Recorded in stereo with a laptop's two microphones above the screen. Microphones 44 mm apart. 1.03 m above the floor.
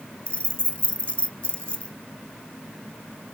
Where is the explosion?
I don't hear an explosion.